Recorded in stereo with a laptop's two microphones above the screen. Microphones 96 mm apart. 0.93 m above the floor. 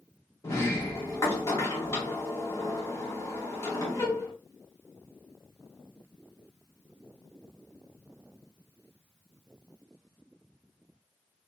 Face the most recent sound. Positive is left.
turn(degrees=30)  # may be behind; listen again after turning